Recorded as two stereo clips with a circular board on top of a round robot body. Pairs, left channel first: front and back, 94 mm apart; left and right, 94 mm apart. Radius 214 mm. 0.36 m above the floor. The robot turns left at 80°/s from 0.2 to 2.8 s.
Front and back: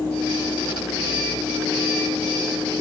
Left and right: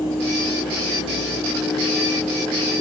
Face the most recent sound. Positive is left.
No sound to turn to.